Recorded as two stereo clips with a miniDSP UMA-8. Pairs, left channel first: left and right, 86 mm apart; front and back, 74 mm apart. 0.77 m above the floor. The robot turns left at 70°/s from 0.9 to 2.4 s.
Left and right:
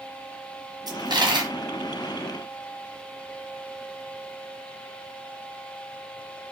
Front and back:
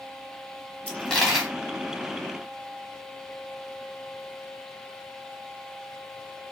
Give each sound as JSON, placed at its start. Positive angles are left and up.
{"t": 0.9, "sound": "a dropped coin", "azimuth_deg": -70, "distance_m": 1.3}